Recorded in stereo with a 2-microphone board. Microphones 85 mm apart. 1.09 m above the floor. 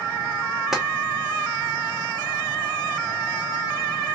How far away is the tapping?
About 0.9 m.